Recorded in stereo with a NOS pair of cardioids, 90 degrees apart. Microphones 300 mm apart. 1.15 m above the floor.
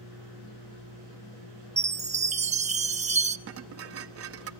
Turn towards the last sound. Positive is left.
turn(degrees=-50)